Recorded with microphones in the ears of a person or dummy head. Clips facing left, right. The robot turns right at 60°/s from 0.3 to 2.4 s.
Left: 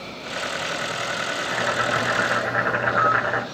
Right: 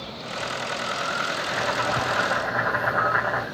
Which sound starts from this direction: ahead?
Boiling, at 1.4 s.